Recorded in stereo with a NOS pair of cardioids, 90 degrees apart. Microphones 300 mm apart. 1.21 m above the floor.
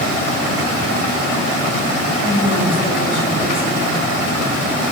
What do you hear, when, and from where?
2.2 s a woman speaking: 30° left, 5 m